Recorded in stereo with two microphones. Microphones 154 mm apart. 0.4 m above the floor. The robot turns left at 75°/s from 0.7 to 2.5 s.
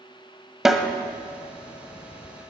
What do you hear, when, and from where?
0.7 s a snare drum: centre (ahead or behind), 1.0 m; by 0.9 s 15° left (ahead or behind), 1.0 m